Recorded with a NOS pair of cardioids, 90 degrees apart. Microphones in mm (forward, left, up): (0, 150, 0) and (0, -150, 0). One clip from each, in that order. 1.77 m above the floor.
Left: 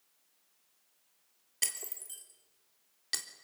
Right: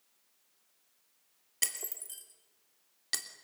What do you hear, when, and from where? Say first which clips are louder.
1.6 s breaking glass: right 1 dB; 10° right, 3 m